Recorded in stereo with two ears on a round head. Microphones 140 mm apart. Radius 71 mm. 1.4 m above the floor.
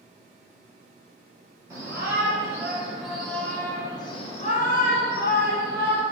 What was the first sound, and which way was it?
A shout, 20° right (ahead or behind).